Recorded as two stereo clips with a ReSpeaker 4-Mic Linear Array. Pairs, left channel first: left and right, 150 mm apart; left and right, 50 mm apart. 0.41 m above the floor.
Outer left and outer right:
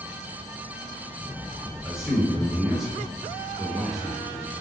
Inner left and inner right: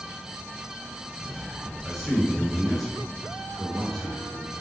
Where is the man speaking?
5° right (ahead or behind), 0.7 m.